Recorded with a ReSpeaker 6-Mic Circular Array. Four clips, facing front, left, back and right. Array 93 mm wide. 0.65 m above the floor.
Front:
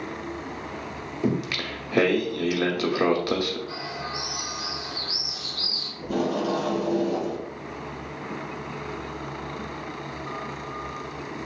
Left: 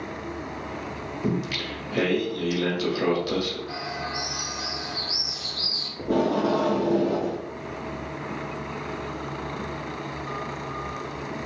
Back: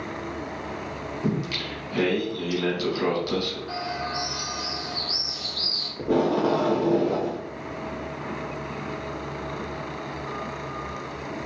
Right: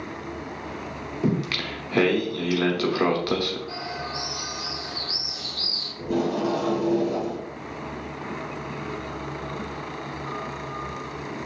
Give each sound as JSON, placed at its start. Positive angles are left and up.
{"t": 1.2, "sound": "singing", "azimuth_deg": -60, "distance_m": 1.0}
{"t": 3.7, "sound": "a bird", "azimuth_deg": 170, "distance_m": 1.5}
{"t": 6.0, "sound": "tape being pulled", "azimuth_deg": 150, "distance_m": 0.7}